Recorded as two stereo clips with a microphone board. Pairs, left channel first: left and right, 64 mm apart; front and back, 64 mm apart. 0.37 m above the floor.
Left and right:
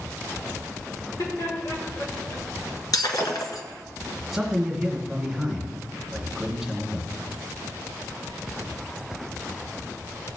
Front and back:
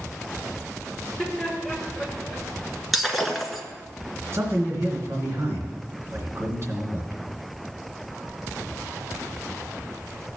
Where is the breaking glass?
90° left, 1.3 m.